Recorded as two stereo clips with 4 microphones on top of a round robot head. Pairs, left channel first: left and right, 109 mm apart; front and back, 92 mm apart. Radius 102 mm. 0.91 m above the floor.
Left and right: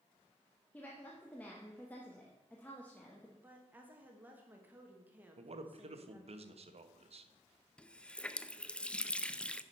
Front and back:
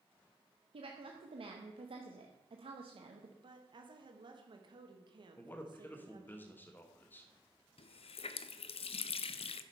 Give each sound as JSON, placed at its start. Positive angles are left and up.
{"t": 0.7, "sound": "a woman speaking", "azimuth_deg": 170, "distance_m": 1.0}
{"t": 3.4, "sound": "a woman speaking", "azimuth_deg": -160, "distance_m": 1.3}
{"t": 5.4, "sound": "a man speaking", "azimuth_deg": -70, "distance_m": 1.1}
{"t": 7.8, "sound": "a running tap", "azimuth_deg": 10, "distance_m": 0.5}